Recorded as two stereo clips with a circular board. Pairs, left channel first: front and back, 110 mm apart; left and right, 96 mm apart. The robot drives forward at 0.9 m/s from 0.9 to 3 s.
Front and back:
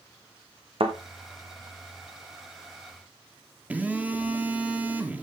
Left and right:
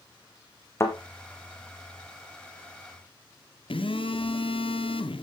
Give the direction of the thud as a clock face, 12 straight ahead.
7 o'clock.